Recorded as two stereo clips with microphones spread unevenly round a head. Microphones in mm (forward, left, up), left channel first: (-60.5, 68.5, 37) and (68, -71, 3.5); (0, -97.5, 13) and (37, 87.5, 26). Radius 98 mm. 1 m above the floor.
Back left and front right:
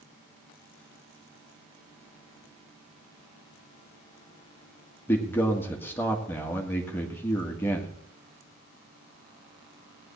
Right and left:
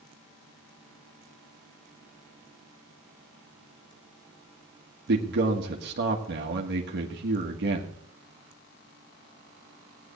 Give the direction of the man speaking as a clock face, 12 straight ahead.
10 o'clock.